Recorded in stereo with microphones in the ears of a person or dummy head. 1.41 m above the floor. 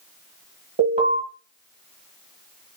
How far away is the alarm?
About 1.4 m.